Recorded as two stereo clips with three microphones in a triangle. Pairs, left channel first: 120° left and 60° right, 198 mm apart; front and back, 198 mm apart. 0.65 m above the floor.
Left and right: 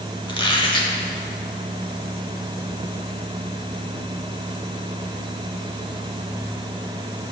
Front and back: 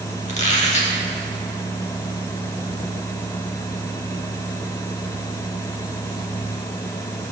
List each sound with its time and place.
0.3 s a squeak: 50° left, 1.0 m